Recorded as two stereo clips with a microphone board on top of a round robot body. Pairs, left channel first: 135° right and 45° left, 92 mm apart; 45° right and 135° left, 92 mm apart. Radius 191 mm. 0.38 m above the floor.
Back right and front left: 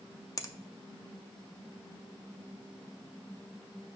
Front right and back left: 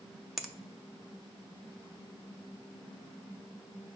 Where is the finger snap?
135° right, 0.8 m.